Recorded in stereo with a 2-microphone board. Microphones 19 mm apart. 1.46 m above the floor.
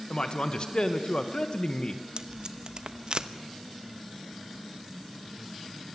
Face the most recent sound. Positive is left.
turn(degrees=-45)  # may be behind; listen again after turning